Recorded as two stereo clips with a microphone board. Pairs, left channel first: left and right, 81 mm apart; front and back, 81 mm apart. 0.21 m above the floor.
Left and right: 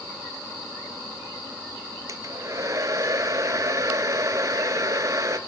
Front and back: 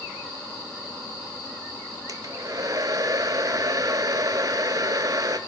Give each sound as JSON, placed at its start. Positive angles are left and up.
{"t": 2.1, "sound": "a hair dryer", "azimuth_deg": -140, "distance_m": 0.6}